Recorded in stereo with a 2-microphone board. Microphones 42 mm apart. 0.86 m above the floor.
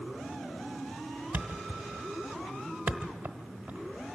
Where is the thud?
50° right (ahead or behind), 1.1 m.